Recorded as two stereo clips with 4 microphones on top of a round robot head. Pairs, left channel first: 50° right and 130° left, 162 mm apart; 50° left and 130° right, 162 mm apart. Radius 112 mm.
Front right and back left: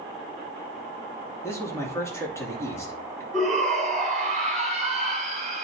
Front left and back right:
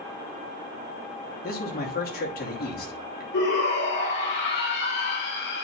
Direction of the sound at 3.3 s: 35° left.